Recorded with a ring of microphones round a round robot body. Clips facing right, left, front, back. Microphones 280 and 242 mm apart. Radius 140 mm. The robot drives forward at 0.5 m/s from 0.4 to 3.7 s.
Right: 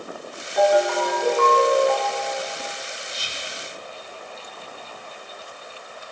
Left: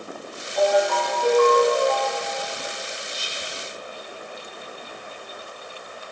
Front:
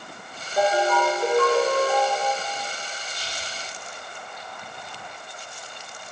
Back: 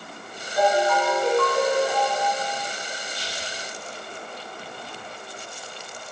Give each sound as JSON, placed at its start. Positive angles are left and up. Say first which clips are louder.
{"t": 0.6, "sound": "a ringtone", "louder": "right 2 dB, back 1 dB", "azimuth_deg": -65, "distance_m": 4.0}
{"t": 3.1, "sound": "whispering", "louder": "left 1 dB, back 3 dB", "azimuth_deg": -75, "distance_m": 4.5}